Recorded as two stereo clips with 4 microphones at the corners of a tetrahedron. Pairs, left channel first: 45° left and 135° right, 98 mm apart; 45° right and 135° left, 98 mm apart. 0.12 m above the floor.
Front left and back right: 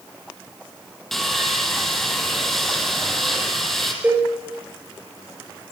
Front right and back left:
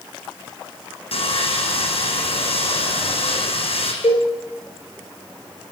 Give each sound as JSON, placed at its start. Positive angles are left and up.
{"t": 1.1, "sound": "sawing", "azimuth_deg": -40, "distance_m": 5.5}
{"t": 4.0, "sound": "a cowbell", "azimuth_deg": -60, "distance_m": 8.0}